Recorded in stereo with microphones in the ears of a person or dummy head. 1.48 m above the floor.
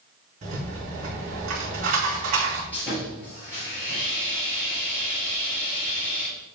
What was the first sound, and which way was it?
A rattle, 40° right (ahead or behind).